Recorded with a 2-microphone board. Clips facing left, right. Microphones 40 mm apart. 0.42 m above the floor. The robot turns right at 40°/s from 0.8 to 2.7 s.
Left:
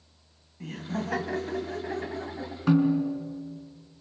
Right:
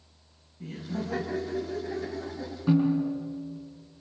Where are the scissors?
No scissors in this recording.